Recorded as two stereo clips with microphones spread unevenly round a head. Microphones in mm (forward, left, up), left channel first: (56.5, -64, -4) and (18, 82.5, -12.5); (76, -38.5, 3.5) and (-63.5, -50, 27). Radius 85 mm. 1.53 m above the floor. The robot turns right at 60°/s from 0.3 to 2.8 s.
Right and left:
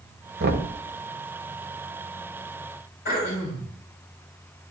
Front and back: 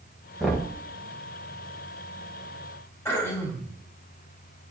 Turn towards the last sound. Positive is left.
turn(degrees=-70)